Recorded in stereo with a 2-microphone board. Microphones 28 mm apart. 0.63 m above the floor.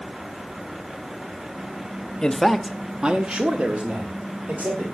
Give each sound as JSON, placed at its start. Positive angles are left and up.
{"t": 2.2, "sound": "a man speaking", "side_deg": 25, "distance_m": 1.1}